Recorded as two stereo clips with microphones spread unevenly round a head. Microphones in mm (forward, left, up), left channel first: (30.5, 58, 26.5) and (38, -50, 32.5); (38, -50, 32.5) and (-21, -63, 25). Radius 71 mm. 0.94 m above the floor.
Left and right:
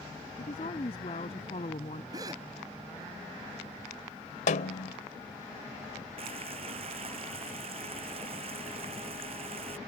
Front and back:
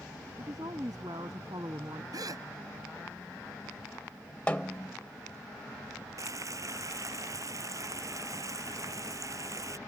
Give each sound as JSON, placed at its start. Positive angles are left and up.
{"t": 0.4, "sound": "a woman speaking", "azimuth_deg": 140}
{"t": 2.1, "sound": "a gasp", "azimuth_deg": -150}
{"t": 4.5, "sound": "a snare drum", "azimuth_deg": 90}
{"t": 6.2, "sound": "frying", "azimuth_deg": -135}